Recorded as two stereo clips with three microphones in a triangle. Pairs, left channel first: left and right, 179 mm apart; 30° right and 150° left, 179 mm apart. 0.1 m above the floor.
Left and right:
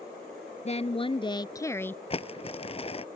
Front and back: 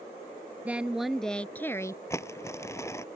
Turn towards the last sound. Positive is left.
turn(degrees=40)